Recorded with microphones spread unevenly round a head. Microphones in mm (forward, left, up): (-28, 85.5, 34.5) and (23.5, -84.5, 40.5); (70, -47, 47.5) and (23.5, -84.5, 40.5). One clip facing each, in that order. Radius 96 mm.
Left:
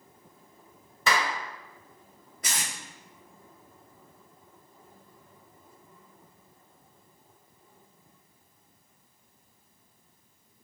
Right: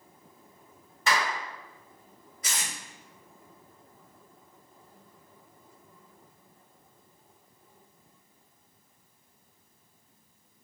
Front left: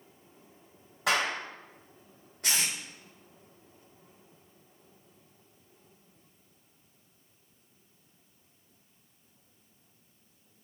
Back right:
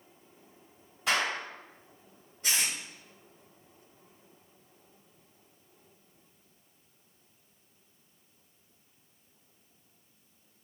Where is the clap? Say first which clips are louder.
Left 1 dB, front left 1 dB; 100° left, 1.9 m.